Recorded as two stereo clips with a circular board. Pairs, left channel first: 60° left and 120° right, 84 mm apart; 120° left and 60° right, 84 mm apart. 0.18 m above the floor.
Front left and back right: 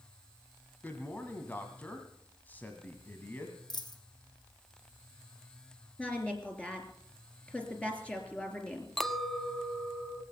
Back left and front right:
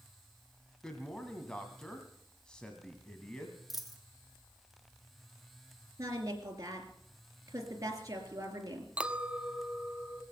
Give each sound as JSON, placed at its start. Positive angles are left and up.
{"t": 0.8, "sound": "a man speaking", "azimuth_deg": 55, "distance_m": 1.6}
{"t": 3.7, "sound": "a dropped coin", "azimuth_deg": 30, "distance_m": 1.6}
{"t": 6.0, "sound": "a woman speaking", "azimuth_deg": -15, "distance_m": 3.0}
{"t": 9.0, "sound": "a clink", "azimuth_deg": -20, "distance_m": 0.6}